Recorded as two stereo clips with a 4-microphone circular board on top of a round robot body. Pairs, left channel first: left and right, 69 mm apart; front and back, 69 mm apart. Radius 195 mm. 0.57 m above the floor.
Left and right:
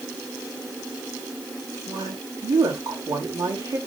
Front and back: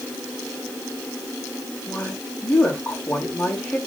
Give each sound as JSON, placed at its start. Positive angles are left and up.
{"t": 1.9, "sound": "a woman speaking", "azimuth_deg": -70, "distance_m": 4.5}